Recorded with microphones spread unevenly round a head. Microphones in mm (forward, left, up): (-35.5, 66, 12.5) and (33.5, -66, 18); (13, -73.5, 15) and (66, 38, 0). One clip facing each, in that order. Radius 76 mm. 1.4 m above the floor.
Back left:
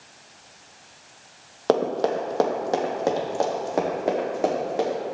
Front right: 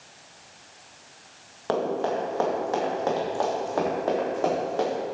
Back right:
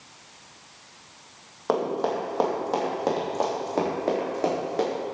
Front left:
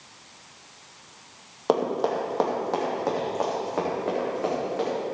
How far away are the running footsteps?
About 2 m.